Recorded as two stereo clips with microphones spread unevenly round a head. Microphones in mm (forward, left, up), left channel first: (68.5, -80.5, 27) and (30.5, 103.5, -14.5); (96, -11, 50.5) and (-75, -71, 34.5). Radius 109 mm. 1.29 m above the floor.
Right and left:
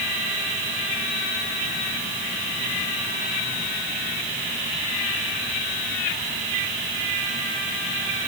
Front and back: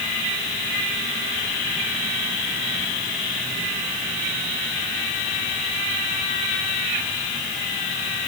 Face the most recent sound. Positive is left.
No sound to turn to.